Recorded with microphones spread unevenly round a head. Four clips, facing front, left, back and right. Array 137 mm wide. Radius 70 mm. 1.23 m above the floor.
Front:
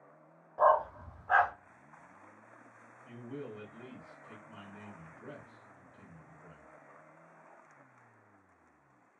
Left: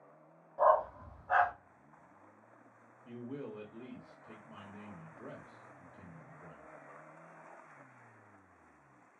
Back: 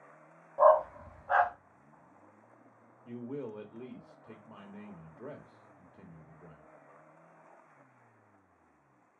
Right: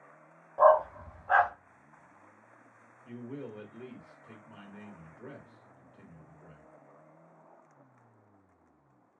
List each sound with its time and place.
0.6 s a dog barking: 110° right, 0.7 m
3.0 s a man speaking: 175° left, 1.1 m